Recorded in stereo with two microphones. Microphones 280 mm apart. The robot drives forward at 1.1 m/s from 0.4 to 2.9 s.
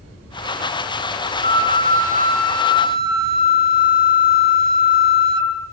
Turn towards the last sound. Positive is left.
turn(degrees=40)  # may be behind; listen again after turning